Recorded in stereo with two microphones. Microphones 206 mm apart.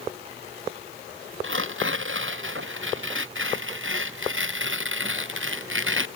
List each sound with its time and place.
1.4 s tearing paper: 75° right (ahead or behind)